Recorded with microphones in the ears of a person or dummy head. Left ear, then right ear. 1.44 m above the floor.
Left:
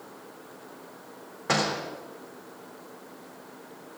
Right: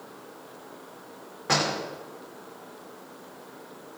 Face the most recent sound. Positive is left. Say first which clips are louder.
# right 1 dB
turn(degrees=15)  # may be behind; listen again after turning